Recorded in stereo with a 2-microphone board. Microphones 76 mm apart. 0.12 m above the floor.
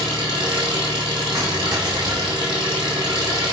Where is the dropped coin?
50° right (ahead or behind), 2 m.